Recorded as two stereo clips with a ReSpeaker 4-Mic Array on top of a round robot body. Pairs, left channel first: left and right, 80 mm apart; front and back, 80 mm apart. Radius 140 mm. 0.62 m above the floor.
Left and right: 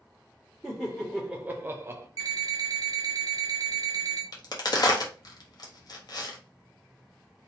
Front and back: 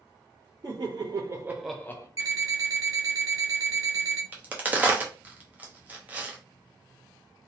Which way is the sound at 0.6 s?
175° left.